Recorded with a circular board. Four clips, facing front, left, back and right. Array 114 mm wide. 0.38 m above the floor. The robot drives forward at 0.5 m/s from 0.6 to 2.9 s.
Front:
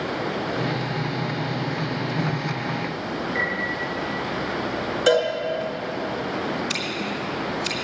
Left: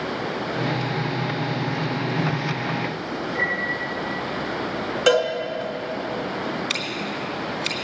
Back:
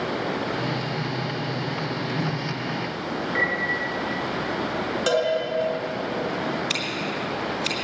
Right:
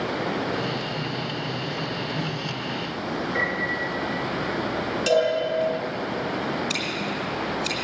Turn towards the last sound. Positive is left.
turn(degrees=110)